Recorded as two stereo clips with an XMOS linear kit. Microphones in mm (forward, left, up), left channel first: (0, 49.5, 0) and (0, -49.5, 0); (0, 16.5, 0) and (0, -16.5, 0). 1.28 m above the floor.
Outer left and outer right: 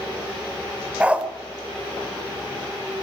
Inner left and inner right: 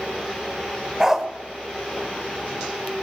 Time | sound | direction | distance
1.0 | a dog barking | 15° right (ahead or behind) | 2 m